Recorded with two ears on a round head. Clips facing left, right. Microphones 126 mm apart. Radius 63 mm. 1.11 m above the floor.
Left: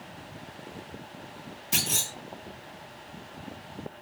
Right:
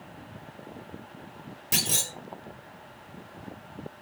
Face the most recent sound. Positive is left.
turn(degrees=-60)  # may be behind; listen again after turning